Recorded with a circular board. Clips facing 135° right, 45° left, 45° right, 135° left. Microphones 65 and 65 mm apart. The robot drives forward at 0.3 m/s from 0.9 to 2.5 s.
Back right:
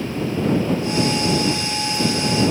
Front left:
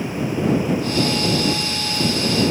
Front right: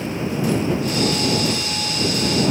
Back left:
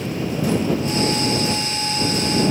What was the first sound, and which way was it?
Only background noise.